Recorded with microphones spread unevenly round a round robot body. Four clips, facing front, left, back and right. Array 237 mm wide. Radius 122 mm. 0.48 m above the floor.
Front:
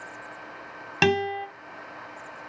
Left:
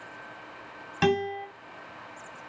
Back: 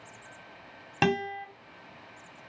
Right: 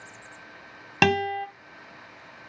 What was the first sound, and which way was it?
A guitar, 55° right.